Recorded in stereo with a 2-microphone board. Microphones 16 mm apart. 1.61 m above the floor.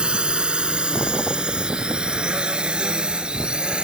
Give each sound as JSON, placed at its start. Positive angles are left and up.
{"t": 0.0, "sound": "a drone", "side_deg": -70}